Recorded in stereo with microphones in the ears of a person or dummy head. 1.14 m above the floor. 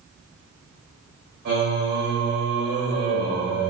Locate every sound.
1.4 s singing: 55° right (ahead or behind), 1.4 m